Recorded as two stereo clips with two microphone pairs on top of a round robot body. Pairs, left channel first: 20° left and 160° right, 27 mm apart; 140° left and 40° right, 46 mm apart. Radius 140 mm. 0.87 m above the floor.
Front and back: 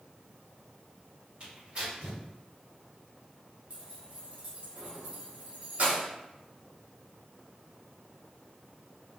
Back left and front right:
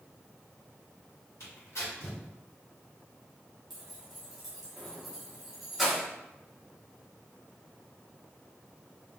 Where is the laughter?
I don't hear laughter.